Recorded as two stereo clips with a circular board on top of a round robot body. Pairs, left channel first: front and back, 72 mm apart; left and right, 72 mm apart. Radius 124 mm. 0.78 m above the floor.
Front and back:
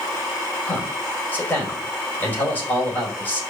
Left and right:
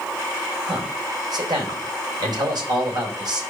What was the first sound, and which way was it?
A man speaking, 65° right.